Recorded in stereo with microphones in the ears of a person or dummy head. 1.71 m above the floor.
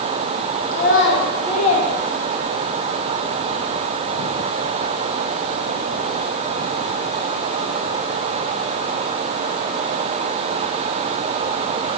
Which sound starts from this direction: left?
A child speaking, at 0.7 s.